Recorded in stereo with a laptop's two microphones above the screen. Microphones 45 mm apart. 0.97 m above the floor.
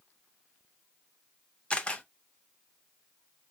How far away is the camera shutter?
About 0.6 m.